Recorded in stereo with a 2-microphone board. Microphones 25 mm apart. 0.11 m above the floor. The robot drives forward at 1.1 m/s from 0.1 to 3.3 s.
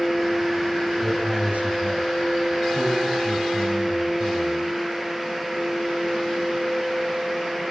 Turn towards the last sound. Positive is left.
turn(degrees=-65)  # may be behind; listen again after turning